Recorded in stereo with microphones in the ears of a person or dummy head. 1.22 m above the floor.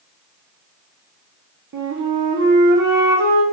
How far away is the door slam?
I don't hear a door slam.